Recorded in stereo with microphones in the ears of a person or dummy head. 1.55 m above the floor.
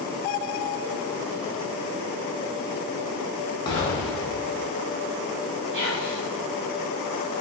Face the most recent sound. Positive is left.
turn(degrees=-60)  # may be behind; listen again after turning